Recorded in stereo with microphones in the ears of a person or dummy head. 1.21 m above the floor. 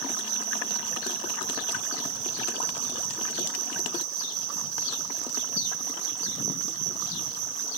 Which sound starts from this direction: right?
An insect, at 0.0 s.